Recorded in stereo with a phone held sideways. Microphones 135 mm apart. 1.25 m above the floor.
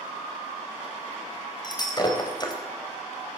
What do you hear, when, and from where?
1.6 s breaking glass: 30° left (ahead or behind), 4 m